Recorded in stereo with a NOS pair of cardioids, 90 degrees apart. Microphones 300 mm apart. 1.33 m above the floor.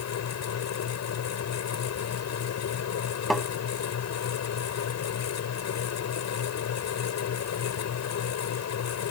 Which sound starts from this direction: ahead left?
A fan, at 0.0 s.